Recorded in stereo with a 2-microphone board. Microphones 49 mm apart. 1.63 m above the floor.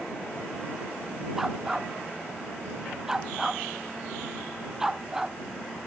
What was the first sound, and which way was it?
A dog barking, 10° right (ahead or behind).